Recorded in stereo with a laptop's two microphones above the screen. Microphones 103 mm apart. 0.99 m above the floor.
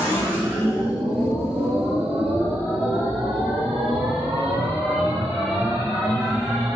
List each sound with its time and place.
0.0 s a machine running: 10° right (ahead or behind), 1.6 m